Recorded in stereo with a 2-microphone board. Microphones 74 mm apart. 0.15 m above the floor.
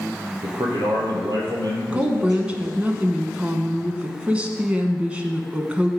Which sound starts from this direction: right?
A man speaking, at 0.4 s.